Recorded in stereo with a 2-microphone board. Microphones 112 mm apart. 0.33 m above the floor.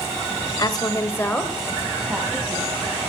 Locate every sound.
0.6 s a woman speaking: 35° left (ahead or behind), 1.2 m; by 3.0 s 15° right (ahead or behind), 3 m